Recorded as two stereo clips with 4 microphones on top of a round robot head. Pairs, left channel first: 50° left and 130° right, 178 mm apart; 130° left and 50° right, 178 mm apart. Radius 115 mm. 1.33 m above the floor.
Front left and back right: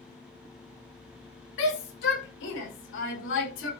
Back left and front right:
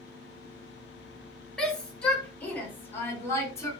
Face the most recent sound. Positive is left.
turn(degrees=55)